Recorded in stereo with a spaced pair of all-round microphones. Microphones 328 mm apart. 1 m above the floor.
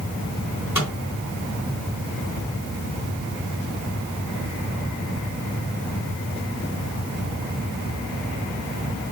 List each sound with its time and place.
0.8 s a microwave: 55° left (ahead or behind), 3.5 m